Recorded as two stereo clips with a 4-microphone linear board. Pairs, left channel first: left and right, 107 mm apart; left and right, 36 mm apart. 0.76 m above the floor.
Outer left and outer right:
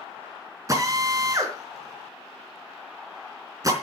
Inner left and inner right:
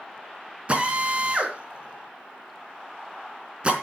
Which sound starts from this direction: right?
A drill, at 0.7 s.